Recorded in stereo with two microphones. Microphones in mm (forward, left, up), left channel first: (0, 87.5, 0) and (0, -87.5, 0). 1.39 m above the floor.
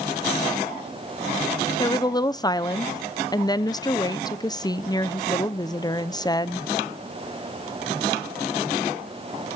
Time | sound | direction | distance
1.8 | a woman speaking | 25° left (ahead or behind) | 0.6 m